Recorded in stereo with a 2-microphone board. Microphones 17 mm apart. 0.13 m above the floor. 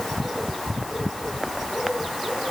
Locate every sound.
Only background noise.